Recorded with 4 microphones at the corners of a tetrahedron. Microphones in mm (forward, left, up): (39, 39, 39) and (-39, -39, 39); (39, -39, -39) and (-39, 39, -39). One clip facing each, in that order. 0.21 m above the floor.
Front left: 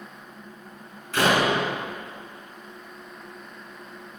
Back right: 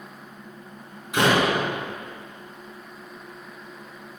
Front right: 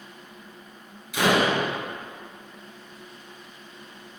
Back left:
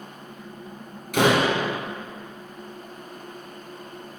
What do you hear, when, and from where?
1.1 s a door slam: 155° left, 2.5 m